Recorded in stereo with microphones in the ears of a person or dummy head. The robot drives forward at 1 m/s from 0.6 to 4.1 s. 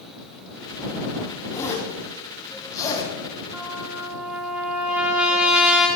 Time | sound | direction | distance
1.5 | a zipper | 20° left (ahead or behind) | 8 m
3.5 | a trumpet | 5° right (ahead or behind) | 6.5 m